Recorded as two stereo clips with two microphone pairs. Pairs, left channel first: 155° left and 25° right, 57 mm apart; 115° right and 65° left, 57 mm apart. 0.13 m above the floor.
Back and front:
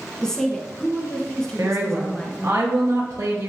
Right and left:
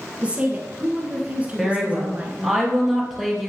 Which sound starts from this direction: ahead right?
A woman speaking, at 1.6 s.